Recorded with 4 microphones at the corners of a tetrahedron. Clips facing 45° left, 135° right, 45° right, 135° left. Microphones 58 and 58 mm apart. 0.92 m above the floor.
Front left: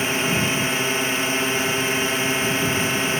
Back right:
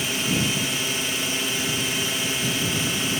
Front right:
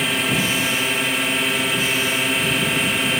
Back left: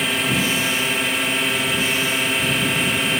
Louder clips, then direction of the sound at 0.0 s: Front left 3 dB, even; 45° left.